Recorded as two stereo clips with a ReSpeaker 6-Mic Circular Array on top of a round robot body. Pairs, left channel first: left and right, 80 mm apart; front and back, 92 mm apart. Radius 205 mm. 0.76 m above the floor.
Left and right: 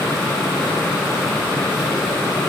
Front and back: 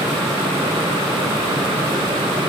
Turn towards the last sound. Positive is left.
No sound to turn to.